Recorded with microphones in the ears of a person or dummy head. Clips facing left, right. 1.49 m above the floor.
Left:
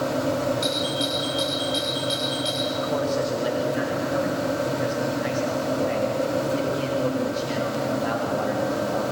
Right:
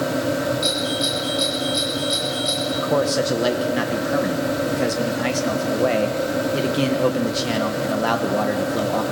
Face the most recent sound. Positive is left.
turn(degrees=-85)